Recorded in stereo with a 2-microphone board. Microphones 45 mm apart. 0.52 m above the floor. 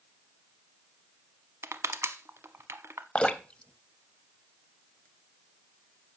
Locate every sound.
1.6 s crushing: 70° right (ahead or behind), 0.7 m
3.1 s dripping: 20° left (ahead or behind), 0.7 m